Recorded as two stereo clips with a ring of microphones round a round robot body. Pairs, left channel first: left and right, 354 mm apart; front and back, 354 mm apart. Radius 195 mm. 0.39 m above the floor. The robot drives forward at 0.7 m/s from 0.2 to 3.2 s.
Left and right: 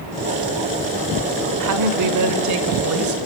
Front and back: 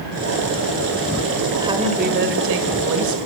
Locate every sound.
1.6 s a woman speaking: 100° right, 1.4 m; by 3.2 s 140° right, 1.9 m